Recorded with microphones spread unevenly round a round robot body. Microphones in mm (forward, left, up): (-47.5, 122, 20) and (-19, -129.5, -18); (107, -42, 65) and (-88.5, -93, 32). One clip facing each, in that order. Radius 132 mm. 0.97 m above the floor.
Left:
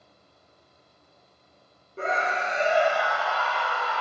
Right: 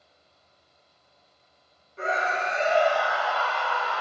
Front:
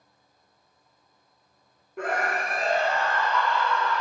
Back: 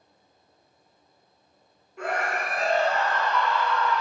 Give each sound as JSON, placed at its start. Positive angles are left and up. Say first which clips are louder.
{"t": 2.0, "sound": "a scream", "louder": "even, front 1 dB", "azimuth_deg": 40, "distance_m": 1.0}